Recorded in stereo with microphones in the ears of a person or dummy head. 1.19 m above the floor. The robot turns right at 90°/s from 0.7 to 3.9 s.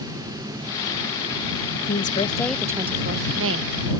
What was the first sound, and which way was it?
A woman speaking, 110° left.